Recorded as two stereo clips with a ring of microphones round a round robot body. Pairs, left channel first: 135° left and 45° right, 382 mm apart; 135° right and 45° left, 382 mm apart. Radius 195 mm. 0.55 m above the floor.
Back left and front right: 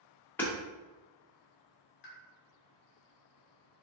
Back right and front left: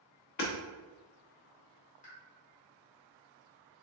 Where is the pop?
170° left, 1.2 m.